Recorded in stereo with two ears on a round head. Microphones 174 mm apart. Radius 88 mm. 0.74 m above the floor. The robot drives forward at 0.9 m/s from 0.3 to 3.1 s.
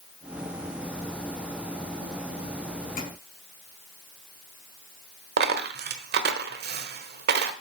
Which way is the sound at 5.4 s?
55° right (ahead or behind).